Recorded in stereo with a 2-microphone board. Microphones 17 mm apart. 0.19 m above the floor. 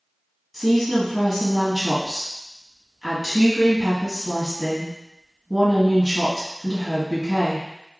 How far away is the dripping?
I don't hear dripping.